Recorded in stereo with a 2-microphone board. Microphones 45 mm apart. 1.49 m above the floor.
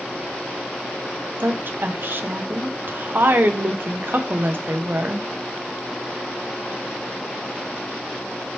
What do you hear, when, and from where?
1.4 s a woman speaking: 55° right (ahead or behind), 0.7 m